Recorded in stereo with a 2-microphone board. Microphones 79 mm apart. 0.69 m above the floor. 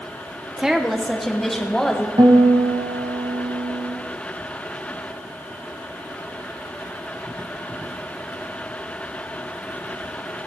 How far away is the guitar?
About 1.4 m.